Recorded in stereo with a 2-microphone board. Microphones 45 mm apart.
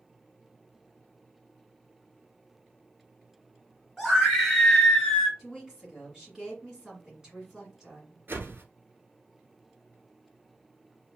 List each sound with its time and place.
4.0 s a scream: centre (ahead or behind), 1.9 m; by 5.3 s 15° left (ahead or behind), 1.5 m
5.4 s a woman speaking: 15° right (ahead or behind), 1.7 m
8.3 s a whoosh: 50° right (ahead or behind), 1.1 m